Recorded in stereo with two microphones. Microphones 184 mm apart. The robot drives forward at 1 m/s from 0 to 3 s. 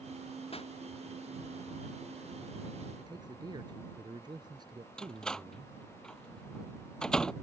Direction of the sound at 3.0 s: 25° right (ahead or behind).